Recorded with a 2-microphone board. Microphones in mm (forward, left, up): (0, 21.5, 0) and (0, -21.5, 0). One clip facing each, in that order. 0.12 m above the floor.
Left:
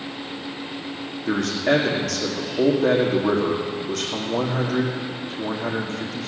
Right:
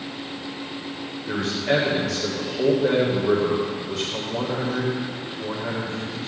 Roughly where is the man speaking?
Left.